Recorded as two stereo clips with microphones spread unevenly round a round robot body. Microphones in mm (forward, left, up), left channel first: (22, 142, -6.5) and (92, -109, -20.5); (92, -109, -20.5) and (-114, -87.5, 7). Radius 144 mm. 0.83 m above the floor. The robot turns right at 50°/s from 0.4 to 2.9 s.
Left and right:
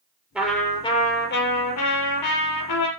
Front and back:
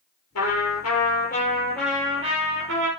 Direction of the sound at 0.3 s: 10° left.